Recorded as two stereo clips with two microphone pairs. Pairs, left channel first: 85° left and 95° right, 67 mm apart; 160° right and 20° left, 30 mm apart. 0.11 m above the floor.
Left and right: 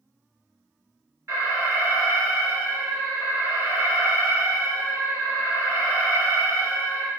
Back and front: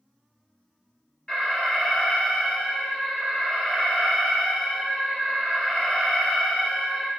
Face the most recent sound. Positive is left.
turn(degrees=-110)